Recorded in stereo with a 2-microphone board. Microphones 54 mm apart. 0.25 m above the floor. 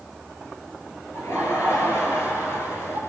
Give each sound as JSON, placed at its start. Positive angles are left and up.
{"t": 1.1, "sound": "laughter", "side_deg": 55, "distance_m": 4.5}